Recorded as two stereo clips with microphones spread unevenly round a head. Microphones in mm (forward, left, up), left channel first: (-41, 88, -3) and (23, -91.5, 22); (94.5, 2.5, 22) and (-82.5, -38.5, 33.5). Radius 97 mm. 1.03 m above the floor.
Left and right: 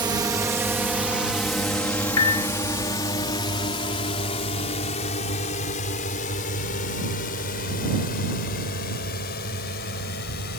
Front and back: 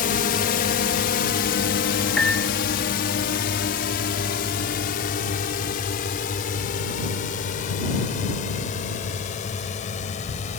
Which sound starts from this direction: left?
A piano, at 2.2 s.